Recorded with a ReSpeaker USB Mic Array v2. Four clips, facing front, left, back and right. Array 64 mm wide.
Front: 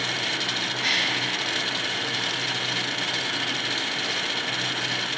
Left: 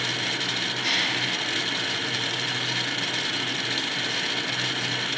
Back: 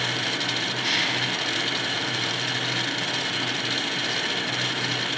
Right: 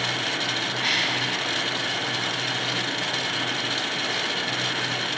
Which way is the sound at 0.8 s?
75° right.